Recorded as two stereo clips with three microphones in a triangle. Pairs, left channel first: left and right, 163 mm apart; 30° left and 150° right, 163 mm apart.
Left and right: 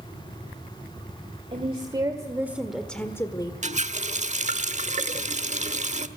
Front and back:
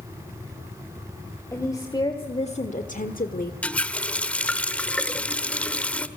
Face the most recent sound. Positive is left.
turn(degrees=-50)